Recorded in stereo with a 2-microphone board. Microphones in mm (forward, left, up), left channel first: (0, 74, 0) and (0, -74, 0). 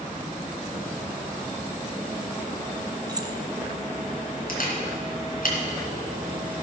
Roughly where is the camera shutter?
Left.